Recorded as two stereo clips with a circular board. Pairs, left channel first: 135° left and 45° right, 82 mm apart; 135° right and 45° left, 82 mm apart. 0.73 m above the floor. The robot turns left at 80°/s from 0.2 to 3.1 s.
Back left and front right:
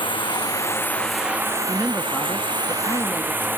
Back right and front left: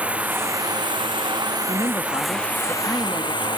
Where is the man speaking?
110° right; by 3.5 s 135° left.